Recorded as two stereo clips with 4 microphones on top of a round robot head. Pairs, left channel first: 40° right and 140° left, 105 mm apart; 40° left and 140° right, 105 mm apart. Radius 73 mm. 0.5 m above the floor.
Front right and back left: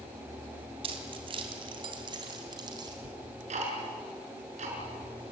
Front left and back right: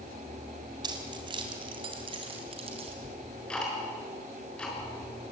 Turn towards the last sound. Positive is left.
turn(degrees=125)